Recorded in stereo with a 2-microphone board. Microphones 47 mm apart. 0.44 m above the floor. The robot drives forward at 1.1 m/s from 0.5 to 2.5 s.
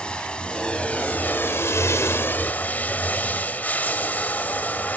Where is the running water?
20° left (ahead or behind), 1.6 m; by 5.0 s 40° left (ahead or behind), 0.9 m.